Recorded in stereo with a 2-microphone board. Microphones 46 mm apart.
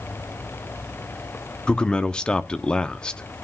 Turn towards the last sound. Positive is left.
turn(degrees=20)  # may be behind; listen again after turning